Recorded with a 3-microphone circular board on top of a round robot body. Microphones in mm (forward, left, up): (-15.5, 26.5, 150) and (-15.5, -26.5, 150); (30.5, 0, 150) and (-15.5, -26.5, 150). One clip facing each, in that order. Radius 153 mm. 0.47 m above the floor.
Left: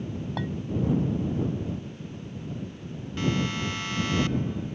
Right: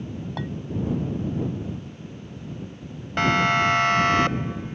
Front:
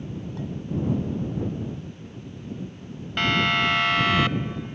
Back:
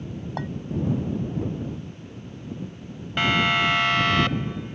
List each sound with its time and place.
0.4 s a clink: straight behind
3.2 s a siren: 65° right; by 4.8 s 50° right